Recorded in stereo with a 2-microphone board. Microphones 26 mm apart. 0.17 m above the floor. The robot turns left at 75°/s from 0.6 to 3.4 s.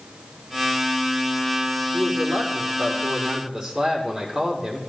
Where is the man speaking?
60° right, 6 m; by 4.8 s 170° right, 6 m.